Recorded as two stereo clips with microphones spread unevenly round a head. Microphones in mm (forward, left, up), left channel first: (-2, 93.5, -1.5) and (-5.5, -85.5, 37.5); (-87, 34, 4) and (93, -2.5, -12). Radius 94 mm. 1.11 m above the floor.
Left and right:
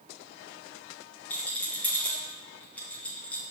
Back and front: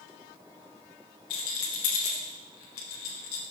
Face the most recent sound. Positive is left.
turn(degrees=165)